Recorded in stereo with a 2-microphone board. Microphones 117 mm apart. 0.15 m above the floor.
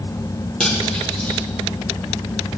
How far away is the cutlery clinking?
About 3 m.